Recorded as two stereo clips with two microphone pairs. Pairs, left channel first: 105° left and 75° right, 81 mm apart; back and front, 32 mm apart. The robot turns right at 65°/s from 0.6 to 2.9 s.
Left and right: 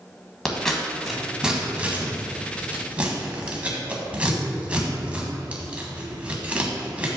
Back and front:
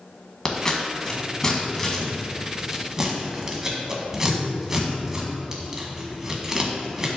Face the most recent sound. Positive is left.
turn(degrees=-40)